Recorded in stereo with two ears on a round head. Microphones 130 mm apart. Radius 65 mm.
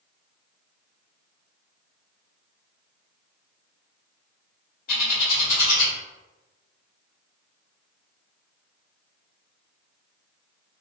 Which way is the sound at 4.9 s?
65° left (ahead or behind).